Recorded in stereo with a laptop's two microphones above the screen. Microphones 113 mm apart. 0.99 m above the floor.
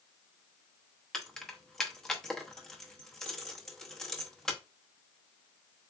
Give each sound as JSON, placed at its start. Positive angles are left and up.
{"t": 1.1, "sound": "keys jangling", "side_deg": 5, "distance_m": 1.0}